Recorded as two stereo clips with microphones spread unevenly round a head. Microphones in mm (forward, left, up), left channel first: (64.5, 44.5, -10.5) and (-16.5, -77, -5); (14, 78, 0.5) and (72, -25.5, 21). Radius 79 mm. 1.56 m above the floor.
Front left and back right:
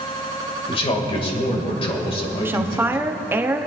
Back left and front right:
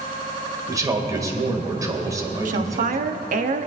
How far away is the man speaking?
About 2.5 m.